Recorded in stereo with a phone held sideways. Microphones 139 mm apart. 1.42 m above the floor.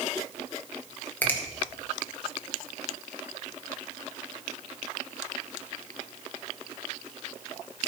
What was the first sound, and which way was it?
A finger snap, 10° left (ahead or behind).